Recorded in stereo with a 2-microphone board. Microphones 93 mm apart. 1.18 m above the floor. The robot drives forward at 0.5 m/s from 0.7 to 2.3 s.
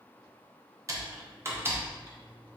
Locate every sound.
0.9 s typing on a keyboard: 35° right (ahead or behind), 0.6 m; by 2.6 s 20° right (ahead or behind), 1.0 m